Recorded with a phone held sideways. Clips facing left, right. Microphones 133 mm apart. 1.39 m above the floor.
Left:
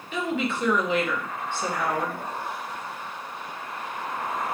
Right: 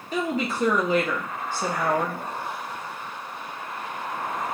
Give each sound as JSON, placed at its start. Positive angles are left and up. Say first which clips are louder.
{"t": 0.1, "sound": "a woman speaking", "louder": "right 1 dB", "side_deg": -40, "distance_m": 0.8}